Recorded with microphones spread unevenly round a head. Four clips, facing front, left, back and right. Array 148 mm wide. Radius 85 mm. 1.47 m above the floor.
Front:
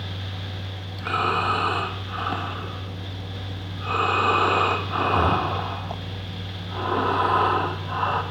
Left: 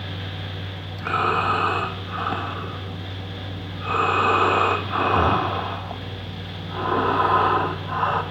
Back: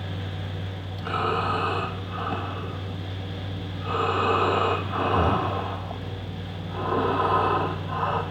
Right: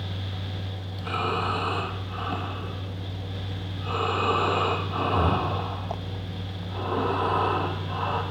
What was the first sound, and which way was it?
Breathing, 55° left.